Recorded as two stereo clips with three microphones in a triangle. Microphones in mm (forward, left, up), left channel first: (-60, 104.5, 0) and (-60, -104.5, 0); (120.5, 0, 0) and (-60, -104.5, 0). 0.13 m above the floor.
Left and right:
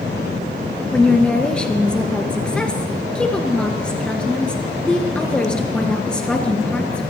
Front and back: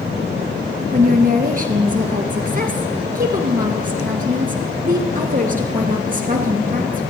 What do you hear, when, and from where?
0.9 s a woman speaking: 175° left, 1.9 m